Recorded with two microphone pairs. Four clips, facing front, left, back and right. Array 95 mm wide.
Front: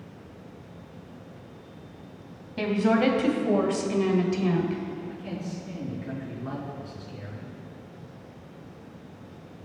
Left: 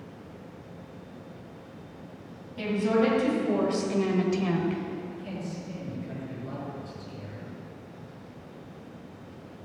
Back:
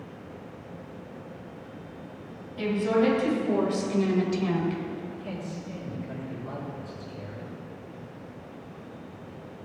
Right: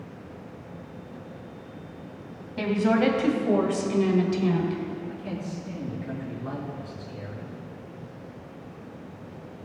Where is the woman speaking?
45° right, 2.5 m; by 5.0 s 105° left, 1.7 m.